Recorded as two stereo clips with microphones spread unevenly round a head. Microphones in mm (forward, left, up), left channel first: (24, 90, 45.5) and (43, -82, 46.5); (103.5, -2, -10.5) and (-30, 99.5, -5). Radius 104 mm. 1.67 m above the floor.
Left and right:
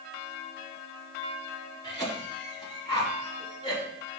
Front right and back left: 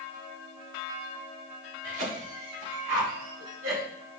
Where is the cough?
170° left, 3.5 m.